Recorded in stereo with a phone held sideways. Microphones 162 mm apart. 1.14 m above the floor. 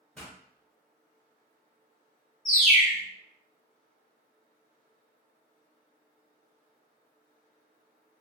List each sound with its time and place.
0.1 s a pop: 5° left (ahead or behind), 1.1 m
2.5 s a bird: 55° left (ahead or behind), 0.9 m